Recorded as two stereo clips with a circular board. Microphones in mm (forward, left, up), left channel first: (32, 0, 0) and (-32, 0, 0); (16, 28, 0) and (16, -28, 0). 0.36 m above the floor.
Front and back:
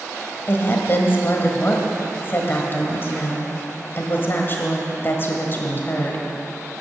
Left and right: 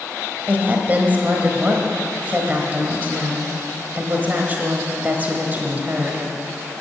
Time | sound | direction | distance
0.5 | a woman speaking | 40° right | 1.4 m